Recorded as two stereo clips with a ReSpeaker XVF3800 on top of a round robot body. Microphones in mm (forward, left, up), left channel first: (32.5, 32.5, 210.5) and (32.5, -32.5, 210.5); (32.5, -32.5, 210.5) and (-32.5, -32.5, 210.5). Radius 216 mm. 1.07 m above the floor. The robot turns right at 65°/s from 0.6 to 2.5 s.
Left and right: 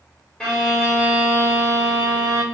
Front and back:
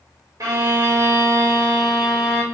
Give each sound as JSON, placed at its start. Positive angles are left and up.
{"t": 0.4, "sound": "a violin", "azimuth_deg": 165, "distance_m": 1.2}